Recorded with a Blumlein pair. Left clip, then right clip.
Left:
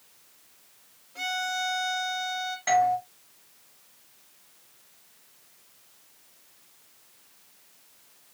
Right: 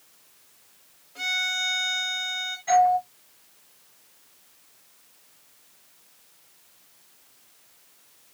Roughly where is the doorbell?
Ahead left.